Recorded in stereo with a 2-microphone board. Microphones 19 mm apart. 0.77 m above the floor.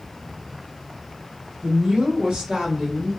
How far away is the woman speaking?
About 0.8 m.